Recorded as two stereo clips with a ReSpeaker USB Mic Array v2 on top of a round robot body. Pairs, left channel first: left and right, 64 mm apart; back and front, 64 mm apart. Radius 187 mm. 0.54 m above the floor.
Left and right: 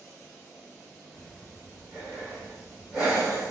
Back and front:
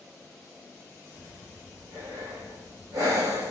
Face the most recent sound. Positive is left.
turn(degrees=-10)